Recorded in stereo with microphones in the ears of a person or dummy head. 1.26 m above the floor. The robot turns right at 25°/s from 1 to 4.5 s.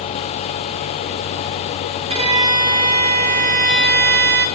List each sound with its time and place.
2.1 s a violin: 150° right, 1.0 m; by 4.5 s 90° right, 1.0 m